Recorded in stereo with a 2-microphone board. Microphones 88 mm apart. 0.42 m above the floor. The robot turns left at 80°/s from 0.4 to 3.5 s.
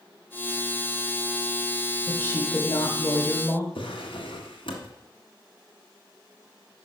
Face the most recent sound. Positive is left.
turn(degrees=75)  # may be behind; listen again after turning